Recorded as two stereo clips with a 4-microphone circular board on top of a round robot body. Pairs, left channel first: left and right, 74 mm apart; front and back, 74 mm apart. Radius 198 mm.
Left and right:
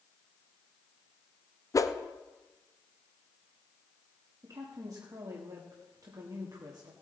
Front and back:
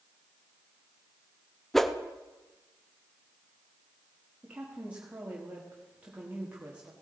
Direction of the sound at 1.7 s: 85° left.